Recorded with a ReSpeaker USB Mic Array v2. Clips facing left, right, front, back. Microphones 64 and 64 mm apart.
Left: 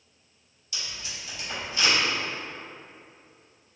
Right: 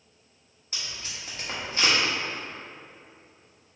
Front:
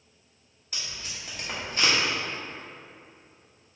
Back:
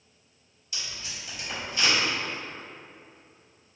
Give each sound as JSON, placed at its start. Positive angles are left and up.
{"t": 0.7, "sound": "tape being pulled", "azimuth_deg": -45, "distance_m": 1.1}